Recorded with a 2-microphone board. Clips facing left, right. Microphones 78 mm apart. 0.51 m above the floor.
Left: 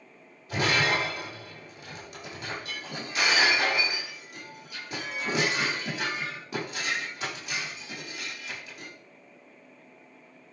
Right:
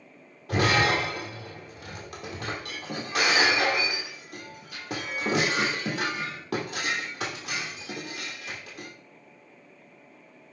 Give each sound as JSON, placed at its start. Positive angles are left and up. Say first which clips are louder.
{"t": 0.5, "sound": "breaking glass", "louder": "right 3 dB", "side_deg": -80, "distance_m": 5.5}